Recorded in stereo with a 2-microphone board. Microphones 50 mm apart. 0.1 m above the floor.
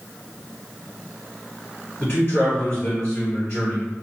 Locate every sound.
2.0 s a man speaking: 45° left (ahead or behind), 2.0 m